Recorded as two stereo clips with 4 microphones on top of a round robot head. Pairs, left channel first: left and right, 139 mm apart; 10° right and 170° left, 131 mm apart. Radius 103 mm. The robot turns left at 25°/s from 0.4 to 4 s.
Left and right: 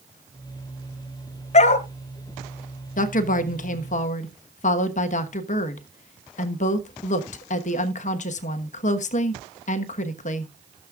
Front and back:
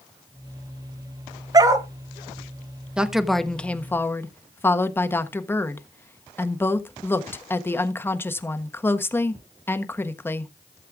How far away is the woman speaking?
About 1.3 m.